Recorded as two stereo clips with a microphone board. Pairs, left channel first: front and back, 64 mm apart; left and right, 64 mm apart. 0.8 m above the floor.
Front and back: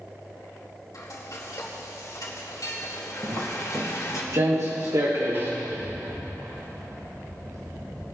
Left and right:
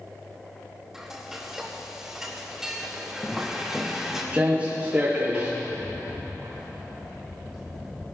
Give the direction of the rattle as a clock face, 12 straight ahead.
6 o'clock.